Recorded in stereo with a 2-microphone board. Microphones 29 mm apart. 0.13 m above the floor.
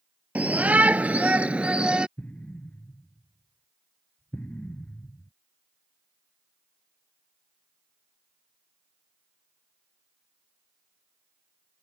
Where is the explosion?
55° left (ahead or behind).